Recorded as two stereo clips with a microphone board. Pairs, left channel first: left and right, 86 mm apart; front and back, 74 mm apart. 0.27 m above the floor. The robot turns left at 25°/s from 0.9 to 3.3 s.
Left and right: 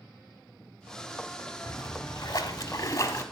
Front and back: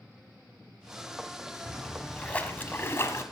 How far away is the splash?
About 0.9 m.